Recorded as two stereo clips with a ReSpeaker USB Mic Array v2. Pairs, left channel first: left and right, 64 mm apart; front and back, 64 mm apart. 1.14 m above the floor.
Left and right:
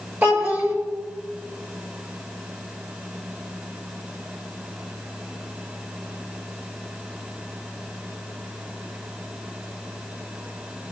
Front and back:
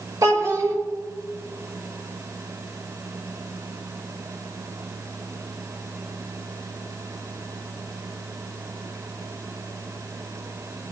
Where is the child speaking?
150° right, 4 m.